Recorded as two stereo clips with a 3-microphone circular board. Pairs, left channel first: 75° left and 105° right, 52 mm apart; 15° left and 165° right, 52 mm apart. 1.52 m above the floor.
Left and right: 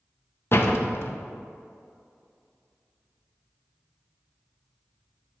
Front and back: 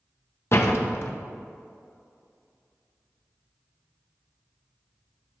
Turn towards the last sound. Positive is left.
turn(degrees=40)